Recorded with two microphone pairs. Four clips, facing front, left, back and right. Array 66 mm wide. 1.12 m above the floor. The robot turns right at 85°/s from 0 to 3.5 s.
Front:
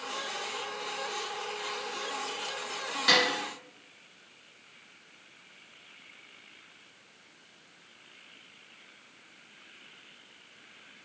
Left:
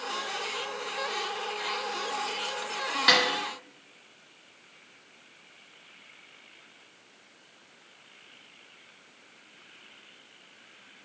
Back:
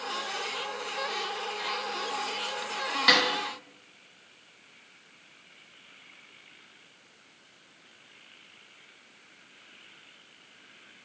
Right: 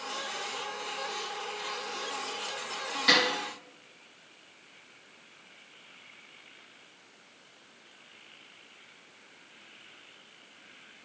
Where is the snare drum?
130° left, 1.5 m; by 3.2 s 140° left, 1.5 m.